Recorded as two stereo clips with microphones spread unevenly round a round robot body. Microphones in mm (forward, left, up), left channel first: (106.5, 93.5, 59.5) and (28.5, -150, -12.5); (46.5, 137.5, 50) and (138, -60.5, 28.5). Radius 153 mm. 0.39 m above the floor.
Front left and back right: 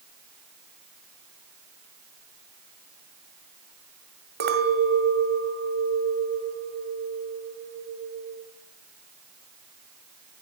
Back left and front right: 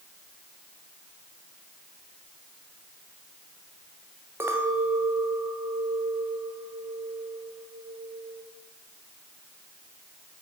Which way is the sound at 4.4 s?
140° right.